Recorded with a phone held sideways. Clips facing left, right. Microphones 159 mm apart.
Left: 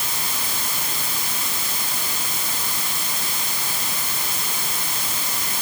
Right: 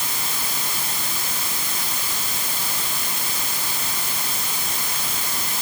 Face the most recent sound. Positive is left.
No sound to turn to.